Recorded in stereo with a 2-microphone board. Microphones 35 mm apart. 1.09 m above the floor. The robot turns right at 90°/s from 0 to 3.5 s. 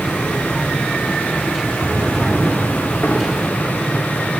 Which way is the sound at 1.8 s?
40° right (ahead or behind).